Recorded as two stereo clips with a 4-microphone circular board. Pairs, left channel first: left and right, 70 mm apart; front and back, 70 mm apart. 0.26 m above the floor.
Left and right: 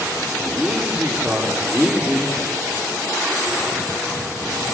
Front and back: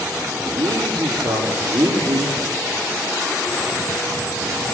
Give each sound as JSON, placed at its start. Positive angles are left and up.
{"t": 0.5, "sound": "a man speaking", "azimuth_deg": -175, "distance_m": 6.5}